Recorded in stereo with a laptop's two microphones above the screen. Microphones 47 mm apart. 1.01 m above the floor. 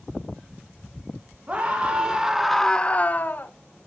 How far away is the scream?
About 1.3 m.